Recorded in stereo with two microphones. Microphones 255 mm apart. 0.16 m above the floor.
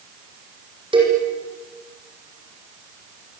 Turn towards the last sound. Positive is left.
turn(degrees=-20)  # may be behind; listen again after turning